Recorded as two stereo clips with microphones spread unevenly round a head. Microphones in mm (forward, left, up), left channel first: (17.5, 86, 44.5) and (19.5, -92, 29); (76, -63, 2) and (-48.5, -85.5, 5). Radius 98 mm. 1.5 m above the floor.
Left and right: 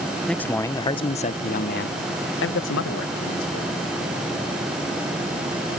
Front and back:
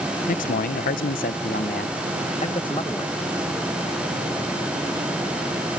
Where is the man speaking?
5° left; by 3.8 s 90° left.